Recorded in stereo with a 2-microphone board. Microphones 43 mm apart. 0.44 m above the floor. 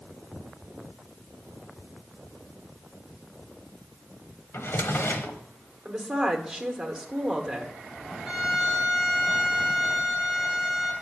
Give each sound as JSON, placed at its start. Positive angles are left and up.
{"t": 4.5, "sound": "a drawer", "side_deg": 65, "distance_m": 1.0}
{"t": 5.8, "sound": "a woman speaking", "side_deg": -20, "distance_m": 1.2}
{"t": 8.2, "sound": "a violin", "side_deg": -5, "distance_m": 2.5}